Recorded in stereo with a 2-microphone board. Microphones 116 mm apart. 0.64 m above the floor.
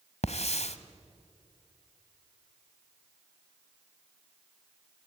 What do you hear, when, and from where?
0.2 s a hiss: 70° left (ahead or behind), 1.3 m